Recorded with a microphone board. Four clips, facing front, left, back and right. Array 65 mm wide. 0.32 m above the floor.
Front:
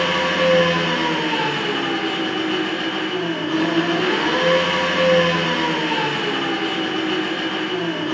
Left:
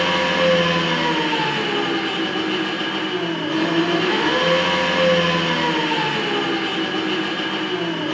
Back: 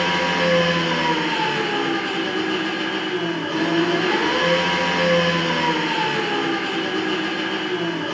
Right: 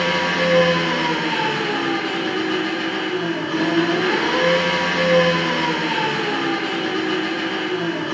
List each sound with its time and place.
0.0 s an engine running: 40° left, 1.1 m